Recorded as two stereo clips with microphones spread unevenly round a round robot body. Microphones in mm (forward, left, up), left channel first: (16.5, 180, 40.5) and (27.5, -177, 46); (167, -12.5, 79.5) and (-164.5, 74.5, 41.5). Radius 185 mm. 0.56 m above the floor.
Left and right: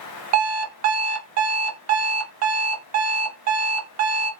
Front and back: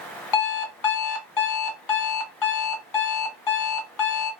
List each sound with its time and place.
0.3 s an alarm clock: 40° right, 1.5 m